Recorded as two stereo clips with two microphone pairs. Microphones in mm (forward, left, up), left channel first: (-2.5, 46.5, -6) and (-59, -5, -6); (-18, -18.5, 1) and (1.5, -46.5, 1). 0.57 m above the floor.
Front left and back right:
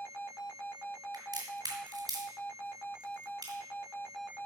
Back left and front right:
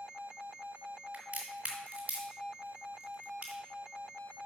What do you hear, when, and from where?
1.1 s a crack: 100° right, 3.5 m